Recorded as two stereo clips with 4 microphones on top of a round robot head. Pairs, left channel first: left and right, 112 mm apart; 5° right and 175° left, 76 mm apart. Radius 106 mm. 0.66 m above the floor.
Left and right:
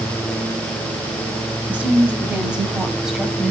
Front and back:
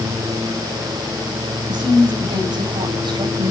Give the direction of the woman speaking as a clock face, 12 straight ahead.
6 o'clock.